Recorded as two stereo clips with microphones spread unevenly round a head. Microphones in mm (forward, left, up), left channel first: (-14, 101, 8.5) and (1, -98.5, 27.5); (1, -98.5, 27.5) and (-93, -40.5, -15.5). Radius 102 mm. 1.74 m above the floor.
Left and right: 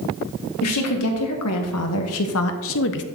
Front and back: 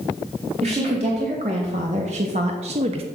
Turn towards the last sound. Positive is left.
turn(degrees=90)